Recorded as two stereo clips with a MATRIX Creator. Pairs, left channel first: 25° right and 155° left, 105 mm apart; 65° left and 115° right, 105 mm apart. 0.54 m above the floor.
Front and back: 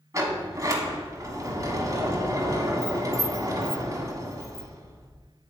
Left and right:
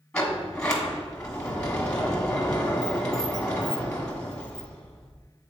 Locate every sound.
0.1 s a sliding door: 140° left, 1.4 m